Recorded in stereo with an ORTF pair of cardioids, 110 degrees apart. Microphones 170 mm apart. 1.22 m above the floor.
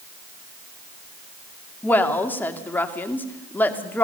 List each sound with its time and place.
1.8 s a woman speaking: 10° left, 2.5 m